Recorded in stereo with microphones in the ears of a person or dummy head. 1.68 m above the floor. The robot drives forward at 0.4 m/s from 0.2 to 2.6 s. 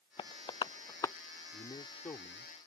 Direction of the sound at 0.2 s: 30° left (ahead or behind).